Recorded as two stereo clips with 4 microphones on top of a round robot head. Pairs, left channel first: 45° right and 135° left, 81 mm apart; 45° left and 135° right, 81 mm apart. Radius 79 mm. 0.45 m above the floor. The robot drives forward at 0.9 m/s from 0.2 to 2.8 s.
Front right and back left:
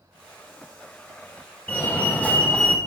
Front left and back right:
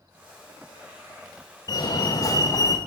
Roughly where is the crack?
No crack in this recording.